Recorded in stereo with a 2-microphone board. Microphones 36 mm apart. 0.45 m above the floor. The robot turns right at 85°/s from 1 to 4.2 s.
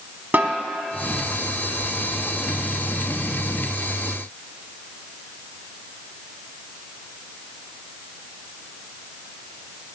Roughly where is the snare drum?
Right.